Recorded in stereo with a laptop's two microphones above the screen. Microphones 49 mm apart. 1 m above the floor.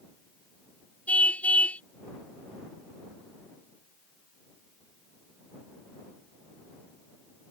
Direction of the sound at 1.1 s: 30° left (ahead or behind).